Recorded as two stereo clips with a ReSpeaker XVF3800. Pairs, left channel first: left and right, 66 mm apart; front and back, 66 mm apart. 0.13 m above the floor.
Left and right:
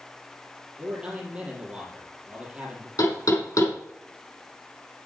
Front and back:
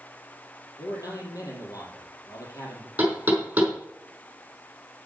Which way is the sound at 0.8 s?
15° right.